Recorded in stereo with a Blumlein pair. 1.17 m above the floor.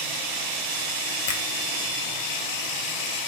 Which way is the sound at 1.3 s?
55° left.